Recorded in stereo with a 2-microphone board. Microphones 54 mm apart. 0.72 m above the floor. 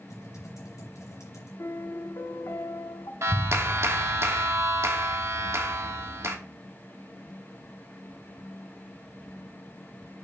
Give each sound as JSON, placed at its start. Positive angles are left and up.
{"t": 0.1, "sound": "typing on a keyboard", "side_deg": 75, "distance_m": 3.5}
{"t": 1.6, "sound": "a piano", "side_deg": 60, "distance_m": 0.8}
{"t": 3.2, "sound": "a clap", "side_deg": -55, "distance_m": 1.1}